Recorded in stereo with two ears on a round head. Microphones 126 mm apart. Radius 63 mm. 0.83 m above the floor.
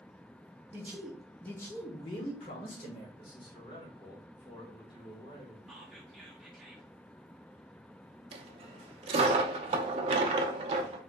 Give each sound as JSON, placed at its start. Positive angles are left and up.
{"t": 0.7, "sound": "a man speaking", "side_deg": -20, "distance_m": 0.8}
{"t": 3.2, "sound": "a man speaking", "side_deg": 35, "distance_m": 1.8}
{"t": 5.7, "sound": "whispering", "side_deg": 0, "distance_m": 1.2}
{"t": 8.3, "sound": "a dropped coin", "side_deg": -45, "distance_m": 0.5}